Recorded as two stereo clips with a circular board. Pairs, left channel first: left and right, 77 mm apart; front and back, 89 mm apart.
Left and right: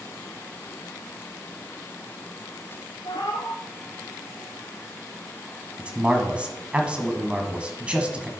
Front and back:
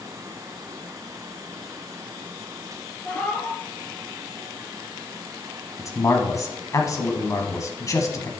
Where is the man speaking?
20° right, 1.6 m.